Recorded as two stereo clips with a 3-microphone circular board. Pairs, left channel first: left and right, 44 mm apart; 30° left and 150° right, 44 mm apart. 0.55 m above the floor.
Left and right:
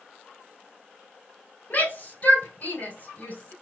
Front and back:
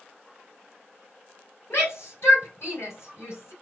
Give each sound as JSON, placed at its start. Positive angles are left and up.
{"t": 1.7, "sound": "a shout", "azimuth_deg": 45, "distance_m": 3.5}